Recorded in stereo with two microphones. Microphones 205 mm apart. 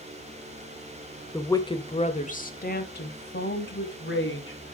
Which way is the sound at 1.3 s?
10° left (ahead or behind).